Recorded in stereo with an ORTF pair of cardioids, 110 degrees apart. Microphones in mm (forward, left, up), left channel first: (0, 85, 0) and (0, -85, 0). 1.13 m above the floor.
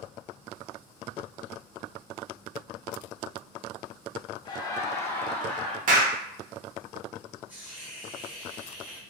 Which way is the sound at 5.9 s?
55° right.